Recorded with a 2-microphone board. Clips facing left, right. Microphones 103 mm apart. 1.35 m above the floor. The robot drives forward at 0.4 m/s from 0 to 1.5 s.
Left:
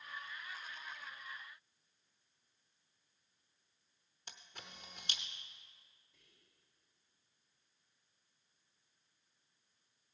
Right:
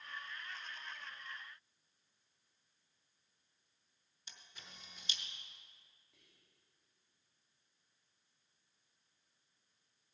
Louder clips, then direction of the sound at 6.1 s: Even; 85° right.